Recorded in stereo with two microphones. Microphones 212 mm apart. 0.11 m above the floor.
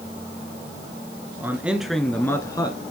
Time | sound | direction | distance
1.4 | a man speaking | 10° right (ahead or behind) | 1.5 m